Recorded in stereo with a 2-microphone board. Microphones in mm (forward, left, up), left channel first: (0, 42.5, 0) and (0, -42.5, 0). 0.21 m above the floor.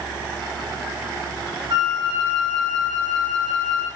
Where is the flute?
60° right (ahead or behind), 5.5 m.